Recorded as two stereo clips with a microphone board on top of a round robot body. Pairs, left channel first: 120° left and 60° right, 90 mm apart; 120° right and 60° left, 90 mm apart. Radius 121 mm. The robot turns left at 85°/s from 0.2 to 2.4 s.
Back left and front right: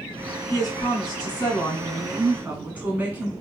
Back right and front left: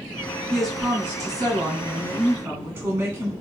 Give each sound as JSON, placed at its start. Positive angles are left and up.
{"t": 0.5, "sound": "a woman speaking", "azimuth_deg": 165, "distance_m": 1.7}